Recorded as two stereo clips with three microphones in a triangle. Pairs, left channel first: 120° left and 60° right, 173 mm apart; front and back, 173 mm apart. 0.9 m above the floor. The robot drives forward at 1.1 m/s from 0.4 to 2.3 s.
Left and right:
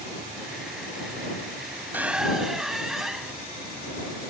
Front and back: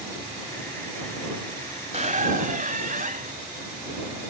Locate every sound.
1.9 s a squeak: 135° right; by 3.3 s 145° right